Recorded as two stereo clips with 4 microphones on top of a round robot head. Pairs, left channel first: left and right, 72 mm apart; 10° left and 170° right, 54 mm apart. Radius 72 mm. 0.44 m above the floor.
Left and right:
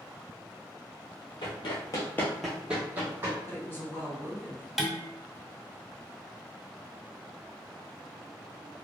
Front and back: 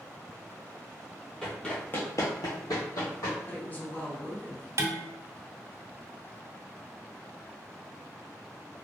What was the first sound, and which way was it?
Running footsteps, 90° left.